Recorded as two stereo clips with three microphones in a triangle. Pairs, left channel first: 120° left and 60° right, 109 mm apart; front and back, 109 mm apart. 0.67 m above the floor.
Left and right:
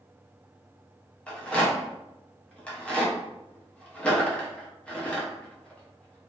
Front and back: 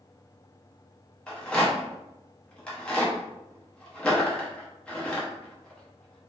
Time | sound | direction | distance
1.3 | a rattle | 60° left | 0.7 m